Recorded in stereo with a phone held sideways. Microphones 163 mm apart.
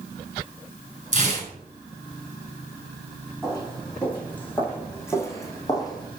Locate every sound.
1.1 s tearing paper: 50° right (ahead or behind), 4.5 m
3.4 s footsteps: 5° left (ahead or behind), 3.5 m; by 6.1 s 25° left (ahead or behind), 2.5 m